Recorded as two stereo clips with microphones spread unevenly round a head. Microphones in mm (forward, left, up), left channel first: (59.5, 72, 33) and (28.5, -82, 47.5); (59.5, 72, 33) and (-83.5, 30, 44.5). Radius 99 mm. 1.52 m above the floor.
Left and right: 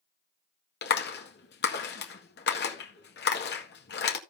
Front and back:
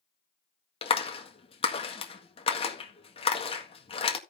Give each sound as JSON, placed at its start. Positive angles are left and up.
{"t": 0.8, "sound": "a clap", "azimuth_deg": 70, "distance_m": 1.8}